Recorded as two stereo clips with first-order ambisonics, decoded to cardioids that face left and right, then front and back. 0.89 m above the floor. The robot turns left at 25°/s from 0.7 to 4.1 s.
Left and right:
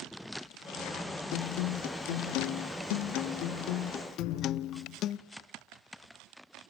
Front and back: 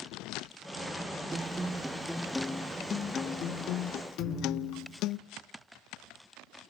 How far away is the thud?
About 5.5 m.